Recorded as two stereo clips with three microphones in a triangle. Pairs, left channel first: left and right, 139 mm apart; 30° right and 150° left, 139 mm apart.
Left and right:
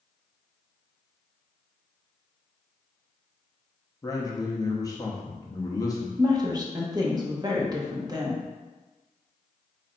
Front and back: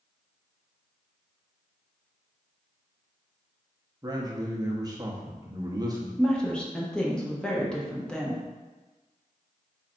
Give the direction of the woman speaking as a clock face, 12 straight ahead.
4 o'clock.